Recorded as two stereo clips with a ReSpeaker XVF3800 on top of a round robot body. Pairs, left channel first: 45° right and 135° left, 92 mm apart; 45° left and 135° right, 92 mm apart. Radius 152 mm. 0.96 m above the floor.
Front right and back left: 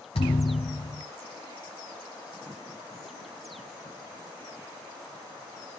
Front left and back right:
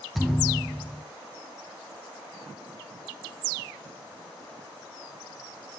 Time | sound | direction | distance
0.1 | a thud | 45° right | 0.9 m